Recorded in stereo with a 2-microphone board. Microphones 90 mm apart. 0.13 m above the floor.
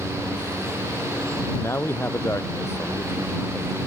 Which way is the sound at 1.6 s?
30° left (ahead or behind).